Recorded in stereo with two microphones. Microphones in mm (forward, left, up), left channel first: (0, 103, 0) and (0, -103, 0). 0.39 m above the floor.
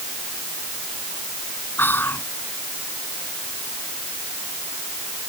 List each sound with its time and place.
1.8 s whispering: 10° left (ahead or behind)